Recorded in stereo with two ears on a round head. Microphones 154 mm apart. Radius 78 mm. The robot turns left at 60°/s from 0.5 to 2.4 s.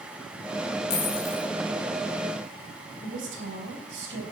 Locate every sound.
0.9 s a dropped coin: 105° left, 4 m; by 1.5 s 70° left, 4 m
3.0 s a woman speaking: 70° right (ahead or behind), 4 m